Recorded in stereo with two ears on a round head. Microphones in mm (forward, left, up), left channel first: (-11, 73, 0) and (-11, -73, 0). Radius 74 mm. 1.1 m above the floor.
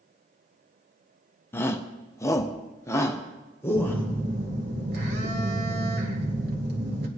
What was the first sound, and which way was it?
A shout, 15° left (ahead or behind).